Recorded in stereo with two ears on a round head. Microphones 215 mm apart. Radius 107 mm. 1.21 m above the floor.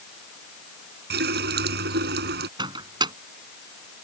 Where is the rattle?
I don't hear a rattle.